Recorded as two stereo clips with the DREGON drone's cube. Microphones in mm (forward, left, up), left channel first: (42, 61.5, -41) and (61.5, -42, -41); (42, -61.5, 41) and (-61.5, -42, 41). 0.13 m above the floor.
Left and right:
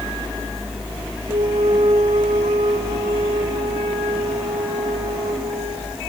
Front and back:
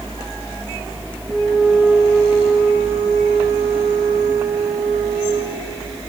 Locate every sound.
1.3 s a flute: 110° right, 5 m